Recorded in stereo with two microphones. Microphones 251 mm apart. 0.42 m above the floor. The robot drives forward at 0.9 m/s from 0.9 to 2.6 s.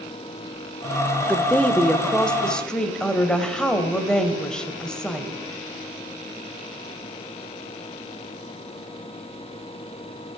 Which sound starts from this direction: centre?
A woman speaking, at 1.3 s.